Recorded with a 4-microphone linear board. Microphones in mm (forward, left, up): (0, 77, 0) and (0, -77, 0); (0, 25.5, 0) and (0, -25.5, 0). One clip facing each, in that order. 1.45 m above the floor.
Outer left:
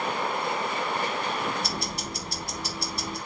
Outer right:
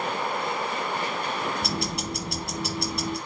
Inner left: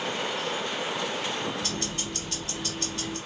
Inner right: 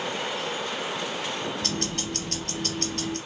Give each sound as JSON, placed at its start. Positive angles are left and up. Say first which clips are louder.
{"t": 1.6, "sound": "ticking", "louder": "outer right 3 dB, inner right 2 dB", "side_deg": -65, "distance_m": 0.8}